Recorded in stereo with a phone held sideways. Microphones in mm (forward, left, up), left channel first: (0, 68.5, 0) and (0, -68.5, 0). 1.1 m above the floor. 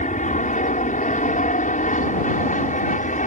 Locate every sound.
0.0 s an aircraft: 65° left (ahead or behind)